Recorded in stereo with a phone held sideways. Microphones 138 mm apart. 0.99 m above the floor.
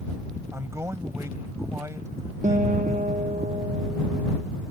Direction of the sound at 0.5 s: 20° right (ahead or behind).